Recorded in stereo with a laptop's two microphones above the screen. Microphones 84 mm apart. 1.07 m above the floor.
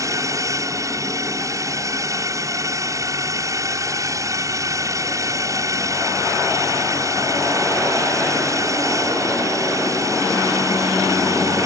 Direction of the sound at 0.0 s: 40° right (ahead or behind).